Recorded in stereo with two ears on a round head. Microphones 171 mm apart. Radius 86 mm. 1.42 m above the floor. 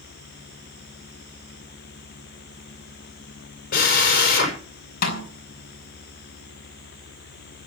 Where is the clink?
No clink in this recording.